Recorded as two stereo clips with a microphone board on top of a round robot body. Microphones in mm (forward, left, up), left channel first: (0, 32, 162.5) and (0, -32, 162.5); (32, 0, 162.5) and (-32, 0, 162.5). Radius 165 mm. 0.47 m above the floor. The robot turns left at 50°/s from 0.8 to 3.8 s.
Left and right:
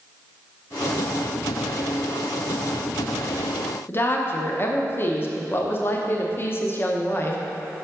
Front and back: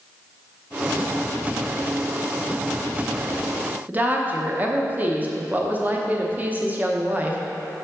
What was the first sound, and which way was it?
A woman speaking, 130° left.